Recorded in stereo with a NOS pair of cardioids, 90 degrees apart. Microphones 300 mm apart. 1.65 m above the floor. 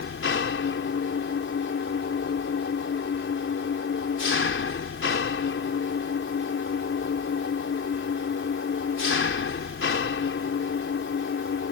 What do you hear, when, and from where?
0.0 s an engine running: 40° left